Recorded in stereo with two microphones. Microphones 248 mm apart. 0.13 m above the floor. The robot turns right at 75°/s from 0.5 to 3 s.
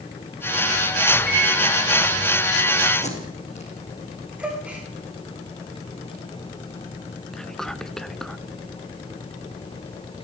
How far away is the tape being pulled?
About 6.5 m.